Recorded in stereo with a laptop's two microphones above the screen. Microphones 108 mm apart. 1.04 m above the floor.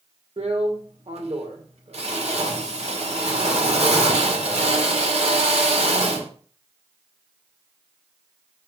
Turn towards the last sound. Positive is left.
turn(degrees=-75)  # may be behind; listen again after turning